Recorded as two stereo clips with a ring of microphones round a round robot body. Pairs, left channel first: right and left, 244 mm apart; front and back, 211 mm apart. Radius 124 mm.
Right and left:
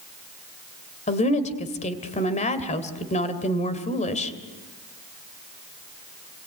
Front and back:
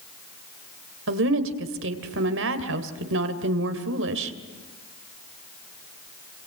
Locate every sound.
1.1 s a woman speaking: 150° right, 2.5 m